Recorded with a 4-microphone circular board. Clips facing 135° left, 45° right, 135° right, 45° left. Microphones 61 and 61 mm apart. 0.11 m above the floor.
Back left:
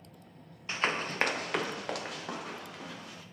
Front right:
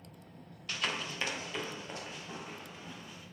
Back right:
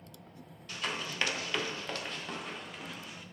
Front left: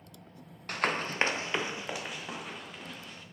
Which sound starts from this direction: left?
Running footsteps, at 0.7 s.